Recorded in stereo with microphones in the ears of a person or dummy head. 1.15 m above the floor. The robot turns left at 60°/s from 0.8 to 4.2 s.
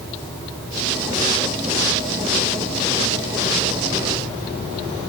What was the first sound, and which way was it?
Only background noise.